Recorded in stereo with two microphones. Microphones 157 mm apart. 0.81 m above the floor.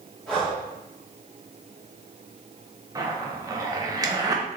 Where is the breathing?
5° left (ahead or behind), 1.8 m.